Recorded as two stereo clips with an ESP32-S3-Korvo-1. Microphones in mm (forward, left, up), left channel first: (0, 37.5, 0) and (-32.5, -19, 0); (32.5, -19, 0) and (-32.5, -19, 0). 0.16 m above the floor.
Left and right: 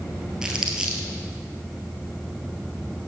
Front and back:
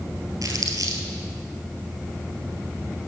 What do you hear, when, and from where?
0.4 s crumpling: 160° left, 1.5 m